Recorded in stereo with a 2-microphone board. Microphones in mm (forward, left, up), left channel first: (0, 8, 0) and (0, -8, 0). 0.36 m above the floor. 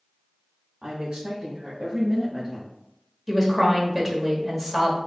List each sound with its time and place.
0.8 s a woman speaking: 65° right (ahead or behind), 2 m; by 2.8 s 5° right (ahead or behind), 1.9 m
3.3 s a woman speaking: 15° right (ahead or behind), 1.2 m